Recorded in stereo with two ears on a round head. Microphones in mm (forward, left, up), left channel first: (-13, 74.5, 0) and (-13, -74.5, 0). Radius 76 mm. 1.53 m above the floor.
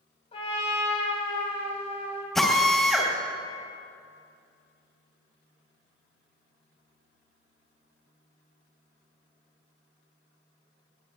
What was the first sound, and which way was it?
A trumpet, 40° left (ahead or behind).